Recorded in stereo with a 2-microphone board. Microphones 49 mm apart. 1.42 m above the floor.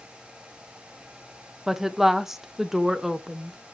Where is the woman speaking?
10° right (ahead or behind), 0.9 m.